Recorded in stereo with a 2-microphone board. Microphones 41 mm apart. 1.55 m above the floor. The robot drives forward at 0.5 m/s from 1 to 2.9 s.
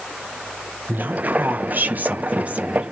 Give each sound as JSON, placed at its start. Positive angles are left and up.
{"t": 0.9, "sound": "a woman speaking", "side_deg": -55, "distance_m": 0.7}